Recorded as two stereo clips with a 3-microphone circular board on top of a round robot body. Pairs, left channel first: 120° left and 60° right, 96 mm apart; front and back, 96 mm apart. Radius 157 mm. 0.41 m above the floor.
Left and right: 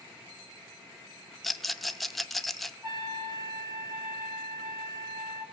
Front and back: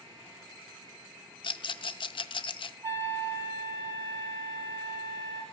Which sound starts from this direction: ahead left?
A rattle, at 1.4 s.